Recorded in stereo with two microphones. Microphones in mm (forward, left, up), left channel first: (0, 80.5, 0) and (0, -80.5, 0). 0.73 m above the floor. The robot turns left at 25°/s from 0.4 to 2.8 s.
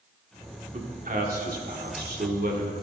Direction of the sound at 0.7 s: 55° right.